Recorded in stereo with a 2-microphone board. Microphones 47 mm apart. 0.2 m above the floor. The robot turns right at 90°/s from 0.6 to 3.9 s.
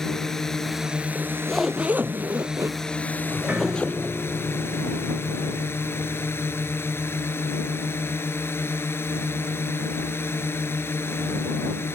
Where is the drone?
170° left; by 11.9 s 105° left.